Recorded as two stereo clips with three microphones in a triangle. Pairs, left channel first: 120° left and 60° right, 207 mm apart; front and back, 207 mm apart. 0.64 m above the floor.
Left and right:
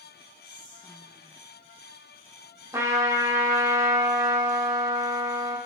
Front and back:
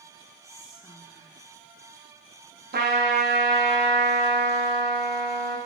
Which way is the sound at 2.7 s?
135° right.